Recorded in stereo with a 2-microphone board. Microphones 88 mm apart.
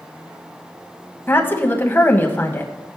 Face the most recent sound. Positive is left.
turn(degrees=25)  # may be behind; listen again after turning